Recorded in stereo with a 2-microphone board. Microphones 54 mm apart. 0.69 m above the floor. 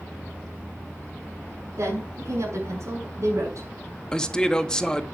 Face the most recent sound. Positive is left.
turn(degrees=10)  # may be behind; listen again after turning